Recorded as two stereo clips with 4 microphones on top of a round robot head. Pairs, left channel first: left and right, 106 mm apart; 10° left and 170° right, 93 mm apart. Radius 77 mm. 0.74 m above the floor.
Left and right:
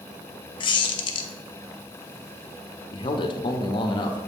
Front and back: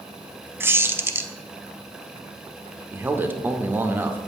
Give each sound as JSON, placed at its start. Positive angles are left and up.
{"t": 0.6, "sound": "a squeak", "azimuth_deg": 125, "distance_m": 0.7}
{"t": 2.9, "sound": "a man speaking", "azimuth_deg": 125, "distance_m": 0.8}